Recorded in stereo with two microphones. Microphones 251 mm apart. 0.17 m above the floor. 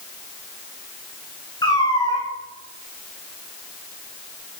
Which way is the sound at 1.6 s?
15° left (ahead or behind).